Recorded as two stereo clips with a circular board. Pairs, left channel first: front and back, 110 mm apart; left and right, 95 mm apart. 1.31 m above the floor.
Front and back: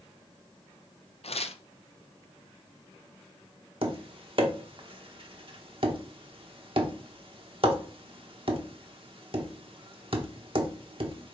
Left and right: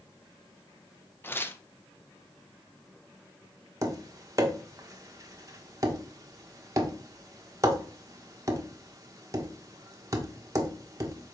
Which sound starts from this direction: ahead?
Tearing paper, at 1.2 s.